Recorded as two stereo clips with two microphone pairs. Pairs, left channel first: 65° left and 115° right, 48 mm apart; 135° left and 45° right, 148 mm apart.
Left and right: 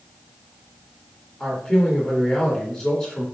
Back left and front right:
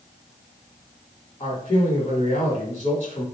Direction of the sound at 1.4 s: 140° left.